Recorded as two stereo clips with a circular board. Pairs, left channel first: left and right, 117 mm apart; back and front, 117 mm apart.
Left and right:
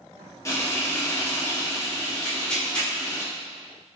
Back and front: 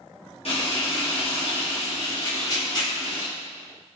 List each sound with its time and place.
0.5 s frying: 155° left, 1.2 m
2.2 s tearing paper: 165° left, 1.1 m